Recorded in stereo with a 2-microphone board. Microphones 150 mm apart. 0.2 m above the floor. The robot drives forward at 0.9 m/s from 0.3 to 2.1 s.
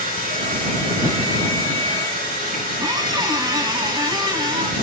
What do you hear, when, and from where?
0.0 s running water: 70° right (ahead or behind), 6 m; by 4.8 s 55° right (ahead or behind), 6.5 m
2.8 s a squeak: 25° right (ahead or behind), 1.0 m